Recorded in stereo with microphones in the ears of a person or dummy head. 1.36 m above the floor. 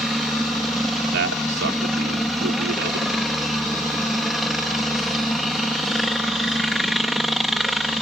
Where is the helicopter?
5° left (ahead or behind).